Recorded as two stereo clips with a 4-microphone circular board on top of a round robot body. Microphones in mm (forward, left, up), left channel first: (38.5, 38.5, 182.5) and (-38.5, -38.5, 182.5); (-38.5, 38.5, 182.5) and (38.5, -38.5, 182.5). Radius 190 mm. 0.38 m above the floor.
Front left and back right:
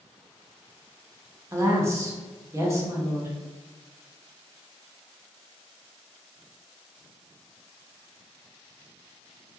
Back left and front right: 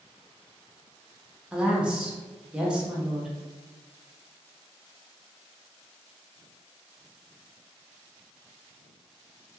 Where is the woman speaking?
115° right, 0.9 m.